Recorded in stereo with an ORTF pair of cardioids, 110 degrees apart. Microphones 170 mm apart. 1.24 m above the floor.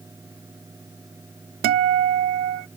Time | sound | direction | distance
0.0 | a fan | 20° right | ?
1.6 | a guitar | 70° right | ?